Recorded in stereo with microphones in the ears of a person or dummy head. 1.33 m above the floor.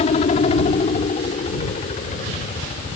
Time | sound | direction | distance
0.0 | a helicopter | 35° left (ahead or behind) | ?